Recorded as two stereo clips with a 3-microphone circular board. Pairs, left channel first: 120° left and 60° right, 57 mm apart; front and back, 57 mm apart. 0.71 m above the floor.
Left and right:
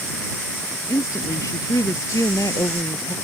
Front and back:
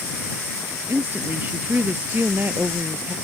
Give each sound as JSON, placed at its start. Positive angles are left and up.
{"t": 0.9, "sound": "a woman speaking", "azimuth_deg": 130}